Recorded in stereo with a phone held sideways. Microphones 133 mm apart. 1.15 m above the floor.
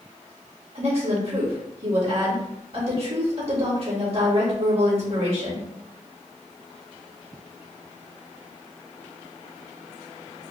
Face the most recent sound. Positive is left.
turn(degrees=-45)  # may be behind; listen again after turning